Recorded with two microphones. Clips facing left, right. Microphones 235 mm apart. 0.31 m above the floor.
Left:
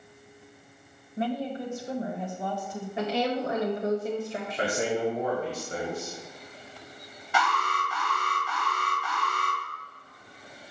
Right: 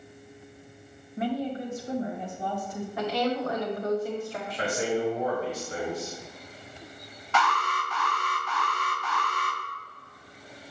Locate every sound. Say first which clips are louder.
1.2 s a woman speaking: right 1 dB; 25° left (ahead or behind), 1.7 m
3.0 s a woman speaking: even; 25° left (ahead or behind), 1.1 m
4.6 s a man speaking: even; 50° left (ahead or behind), 1.9 m
7.3 s an alarm: right 1 dB; 15° left (ahead or behind), 3 m